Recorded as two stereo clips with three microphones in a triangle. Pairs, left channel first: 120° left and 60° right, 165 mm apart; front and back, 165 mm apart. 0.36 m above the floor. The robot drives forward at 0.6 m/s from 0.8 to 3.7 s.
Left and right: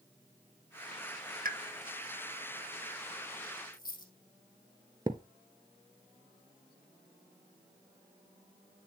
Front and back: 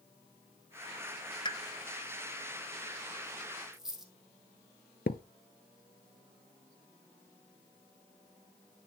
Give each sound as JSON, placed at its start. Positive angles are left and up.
{"t": 1.4, "sound": "a pop", "azimuth_deg": -55, "distance_m": 0.8}
{"t": 3.7, "sound": "a dropped coin", "azimuth_deg": 90, "distance_m": 2.5}
{"t": 5.1, "sound": "a thud", "azimuth_deg": 5, "distance_m": 0.7}